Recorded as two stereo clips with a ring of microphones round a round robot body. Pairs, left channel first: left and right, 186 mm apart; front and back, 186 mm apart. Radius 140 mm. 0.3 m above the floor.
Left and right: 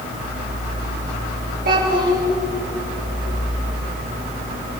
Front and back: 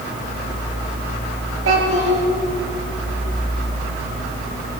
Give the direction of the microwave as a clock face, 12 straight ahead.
I don't hear a microwave.